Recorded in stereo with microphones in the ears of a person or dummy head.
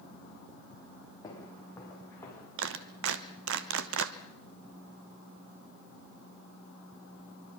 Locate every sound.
1.2 s footsteps: 20° left (ahead or behind), 5 m; by 2.5 s 15° left (ahead or behind), 6 m
2.6 s a clap: 70° right (ahead or behind), 1.0 m